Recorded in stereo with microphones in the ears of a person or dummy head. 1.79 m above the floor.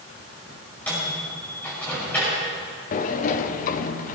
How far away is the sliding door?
About 0.8 m.